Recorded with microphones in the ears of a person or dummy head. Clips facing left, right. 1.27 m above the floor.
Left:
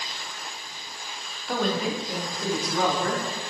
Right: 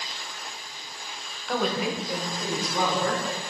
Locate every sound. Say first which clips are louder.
1.5 s a woman speaking: left 1 dB; 5° left (ahead or behind), 0.5 m; by 3.4 s 25° right (ahead or behind), 1.9 m